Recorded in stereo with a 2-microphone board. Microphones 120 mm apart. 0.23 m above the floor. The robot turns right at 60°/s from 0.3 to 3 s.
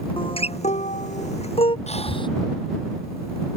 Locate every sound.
0.2 s a guitar: 50° left (ahead or behind); by 1.8 s 45° left (ahead or behind)
1.9 s breathing: 65° left (ahead or behind); by 2.3 s 40° left (ahead or behind)